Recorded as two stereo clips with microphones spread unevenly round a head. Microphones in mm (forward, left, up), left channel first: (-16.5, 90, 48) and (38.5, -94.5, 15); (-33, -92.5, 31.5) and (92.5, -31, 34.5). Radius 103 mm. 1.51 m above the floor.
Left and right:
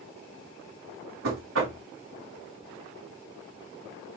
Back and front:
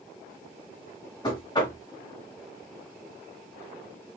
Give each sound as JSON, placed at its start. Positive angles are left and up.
{"t": 1.2, "sound": "knocking", "azimuth_deg": -95, "distance_m": 2.5}